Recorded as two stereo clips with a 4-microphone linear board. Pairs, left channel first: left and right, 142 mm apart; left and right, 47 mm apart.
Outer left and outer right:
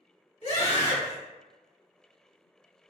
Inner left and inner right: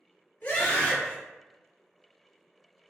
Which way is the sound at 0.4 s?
45° left (ahead or behind).